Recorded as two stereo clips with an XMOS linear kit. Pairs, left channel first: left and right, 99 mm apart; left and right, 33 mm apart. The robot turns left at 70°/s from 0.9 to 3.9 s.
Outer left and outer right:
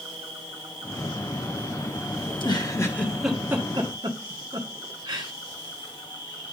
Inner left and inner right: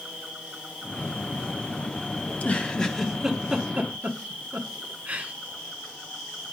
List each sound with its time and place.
0.0 s an insect: 90° right, 1.9 m; by 6.5 s 60° left, 1.9 m
2.3 s a giggle: 65° left (ahead or behind), 1.3 m; by 5.3 s 50° right (ahead or behind), 1.3 m